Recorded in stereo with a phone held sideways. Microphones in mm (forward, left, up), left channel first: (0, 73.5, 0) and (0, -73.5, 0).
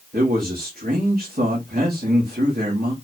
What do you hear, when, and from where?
0.1 s a man speaking: 70° right (ahead or behind), 2.5 m